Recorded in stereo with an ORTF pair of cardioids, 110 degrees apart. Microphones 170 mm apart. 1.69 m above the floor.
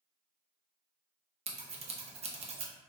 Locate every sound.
1.5 s scissors: 35° right, 0.6 m